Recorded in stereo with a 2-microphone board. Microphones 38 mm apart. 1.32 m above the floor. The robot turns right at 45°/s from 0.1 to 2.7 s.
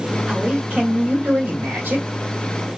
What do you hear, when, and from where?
0.3 s a man speaking: 160° right, 1.6 m; by 2.0 s 80° right, 1.6 m